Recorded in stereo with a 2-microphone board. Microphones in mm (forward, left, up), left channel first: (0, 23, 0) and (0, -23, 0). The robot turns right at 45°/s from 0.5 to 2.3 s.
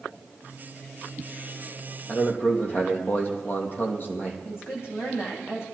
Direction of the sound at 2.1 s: 45° left (ahead or behind).